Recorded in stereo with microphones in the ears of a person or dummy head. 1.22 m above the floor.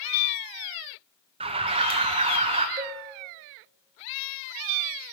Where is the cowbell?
30° right (ahead or behind), 0.7 m.